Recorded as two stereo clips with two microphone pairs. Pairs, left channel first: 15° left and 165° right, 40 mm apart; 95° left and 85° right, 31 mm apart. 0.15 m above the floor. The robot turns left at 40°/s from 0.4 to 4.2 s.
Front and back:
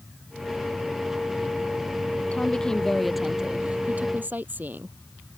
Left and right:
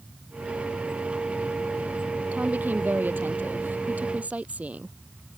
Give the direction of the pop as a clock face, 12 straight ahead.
No pop in this recording.